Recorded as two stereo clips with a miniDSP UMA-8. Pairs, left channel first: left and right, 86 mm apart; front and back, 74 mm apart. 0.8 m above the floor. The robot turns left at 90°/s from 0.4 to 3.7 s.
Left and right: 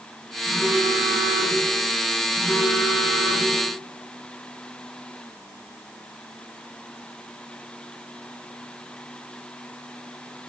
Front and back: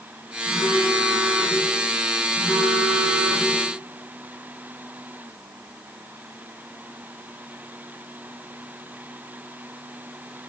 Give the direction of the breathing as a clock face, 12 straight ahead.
I don't hear breathing.